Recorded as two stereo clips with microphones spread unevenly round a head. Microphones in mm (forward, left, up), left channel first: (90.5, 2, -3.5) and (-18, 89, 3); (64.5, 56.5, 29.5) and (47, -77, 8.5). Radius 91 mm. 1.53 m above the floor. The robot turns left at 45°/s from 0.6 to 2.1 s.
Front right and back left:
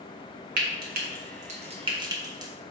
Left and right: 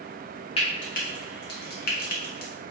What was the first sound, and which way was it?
Frying, 145° left.